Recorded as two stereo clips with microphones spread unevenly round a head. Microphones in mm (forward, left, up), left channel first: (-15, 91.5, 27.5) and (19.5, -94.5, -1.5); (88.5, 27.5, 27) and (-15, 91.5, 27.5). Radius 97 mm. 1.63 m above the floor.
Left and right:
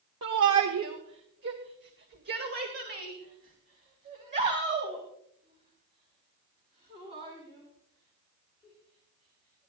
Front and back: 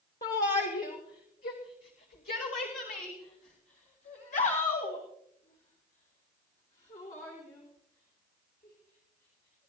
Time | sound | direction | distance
0.2 | a shout | 70° right | 1.2 m